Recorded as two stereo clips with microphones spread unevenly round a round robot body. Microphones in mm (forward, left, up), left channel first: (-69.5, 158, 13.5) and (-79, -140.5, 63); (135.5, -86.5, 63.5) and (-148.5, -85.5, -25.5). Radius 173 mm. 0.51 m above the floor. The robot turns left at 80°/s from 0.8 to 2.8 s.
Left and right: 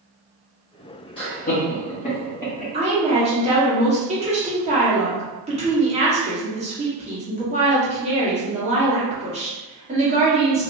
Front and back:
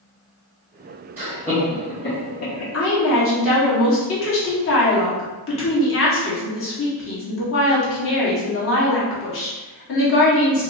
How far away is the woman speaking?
About 1.4 m.